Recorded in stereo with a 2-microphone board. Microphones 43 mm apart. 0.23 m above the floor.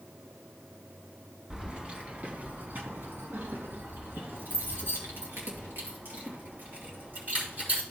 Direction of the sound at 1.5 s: 20° right (ahead or behind).